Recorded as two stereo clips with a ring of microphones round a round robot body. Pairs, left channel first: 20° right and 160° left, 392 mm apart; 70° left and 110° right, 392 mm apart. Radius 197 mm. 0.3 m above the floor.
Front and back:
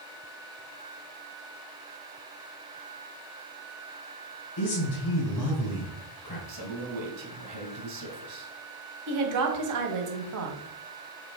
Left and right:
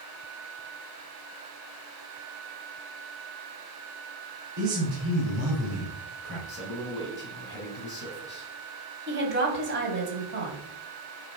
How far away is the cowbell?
I don't hear a cowbell.